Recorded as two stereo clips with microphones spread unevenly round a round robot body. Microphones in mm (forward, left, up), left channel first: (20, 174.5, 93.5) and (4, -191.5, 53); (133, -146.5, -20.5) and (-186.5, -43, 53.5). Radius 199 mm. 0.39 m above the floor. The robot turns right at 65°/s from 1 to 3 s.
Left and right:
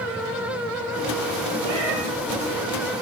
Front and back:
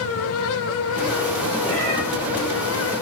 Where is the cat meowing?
95° right, 6.5 m; by 2.0 s 70° right, 6.5 m.